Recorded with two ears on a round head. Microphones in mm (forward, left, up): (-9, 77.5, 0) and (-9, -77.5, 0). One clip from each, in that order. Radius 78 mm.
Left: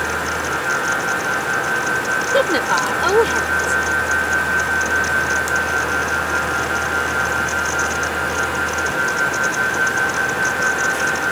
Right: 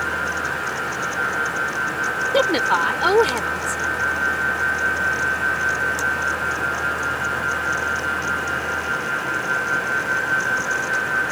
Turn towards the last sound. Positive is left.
turn(degrees=-15)  # may be behind; listen again after turning